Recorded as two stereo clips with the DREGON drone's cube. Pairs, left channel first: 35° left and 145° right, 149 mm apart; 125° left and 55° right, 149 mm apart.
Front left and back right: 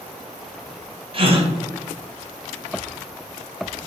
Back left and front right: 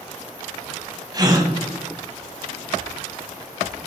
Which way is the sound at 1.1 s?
110° right.